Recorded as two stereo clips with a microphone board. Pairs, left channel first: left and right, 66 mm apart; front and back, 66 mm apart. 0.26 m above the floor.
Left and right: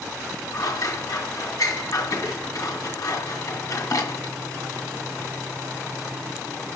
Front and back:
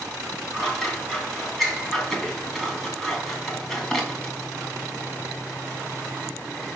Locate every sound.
0.5 s scissors: 80° left, 2.5 m